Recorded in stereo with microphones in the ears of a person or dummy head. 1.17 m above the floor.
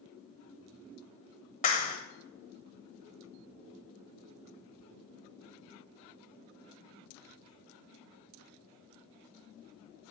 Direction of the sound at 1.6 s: 45° left (ahead or behind).